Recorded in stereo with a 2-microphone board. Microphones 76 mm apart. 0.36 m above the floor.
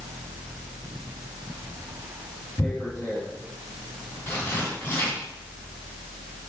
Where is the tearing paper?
30° left (ahead or behind), 3 m.